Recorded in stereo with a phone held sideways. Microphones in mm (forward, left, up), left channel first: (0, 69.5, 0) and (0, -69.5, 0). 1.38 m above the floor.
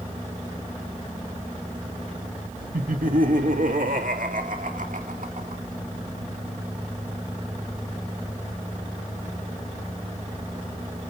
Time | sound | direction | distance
2.7 | laughter | 85° right | 1.7 m